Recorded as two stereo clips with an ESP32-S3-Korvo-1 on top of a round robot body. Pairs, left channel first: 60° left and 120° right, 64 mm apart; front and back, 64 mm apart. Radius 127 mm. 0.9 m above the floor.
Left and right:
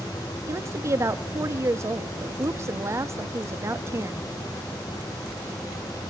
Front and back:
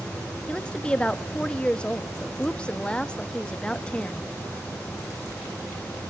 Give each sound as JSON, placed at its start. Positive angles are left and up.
{"t": 0.5, "sound": "a woman speaking", "azimuth_deg": -75, "distance_m": 1.6}